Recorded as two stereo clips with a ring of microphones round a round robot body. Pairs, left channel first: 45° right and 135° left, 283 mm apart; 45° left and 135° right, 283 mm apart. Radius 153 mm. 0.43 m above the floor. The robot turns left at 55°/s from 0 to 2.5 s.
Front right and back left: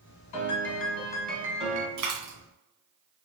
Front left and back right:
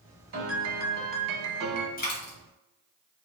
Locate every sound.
0.3 s a piano: 80° right, 1.0 m; by 1.9 s 165° right, 1.0 m
2.0 s a dropped coin: 105° left, 1.9 m; by 2.4 s 85° left, 1.9 m